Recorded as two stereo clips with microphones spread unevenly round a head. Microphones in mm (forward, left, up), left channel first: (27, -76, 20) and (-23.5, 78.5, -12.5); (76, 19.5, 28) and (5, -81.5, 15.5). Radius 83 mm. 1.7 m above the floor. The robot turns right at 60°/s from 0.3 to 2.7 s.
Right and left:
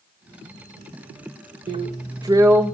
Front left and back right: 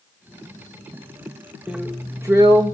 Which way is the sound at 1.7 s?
140° left.